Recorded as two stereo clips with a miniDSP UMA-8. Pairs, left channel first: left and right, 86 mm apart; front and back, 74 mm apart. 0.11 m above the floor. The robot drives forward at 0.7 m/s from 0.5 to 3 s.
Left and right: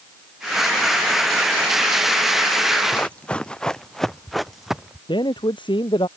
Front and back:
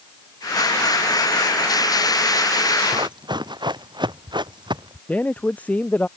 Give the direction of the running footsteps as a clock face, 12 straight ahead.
7 o'clock.